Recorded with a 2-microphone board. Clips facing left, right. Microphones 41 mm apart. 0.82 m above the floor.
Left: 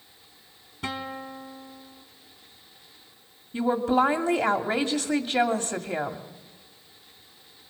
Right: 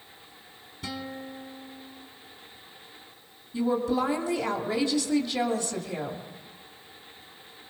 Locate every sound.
0.8 s a guitar: 50° left (ahead or behind), 1.5 m
3.5 s a woman speaking: 55° left (ahead or behind), 2.0 m